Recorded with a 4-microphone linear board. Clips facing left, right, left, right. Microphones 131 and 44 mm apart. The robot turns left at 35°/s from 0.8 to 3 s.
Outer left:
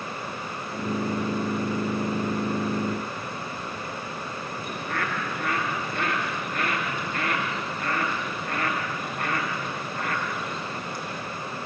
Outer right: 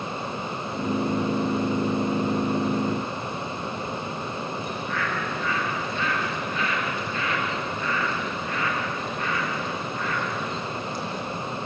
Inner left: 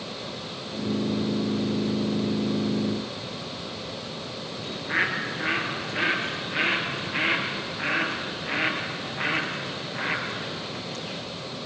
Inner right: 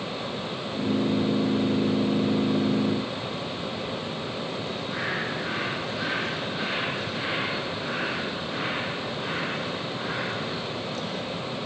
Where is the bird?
55° left (ahead or behind), 5 m.